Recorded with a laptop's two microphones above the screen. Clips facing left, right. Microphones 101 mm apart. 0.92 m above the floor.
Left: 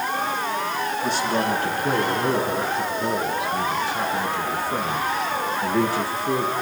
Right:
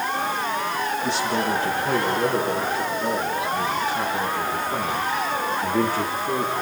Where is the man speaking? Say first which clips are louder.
Left 2 dB; 60° left (ahead or behind), 9.5 m; by 6.5 s 80° left, 9.5 m.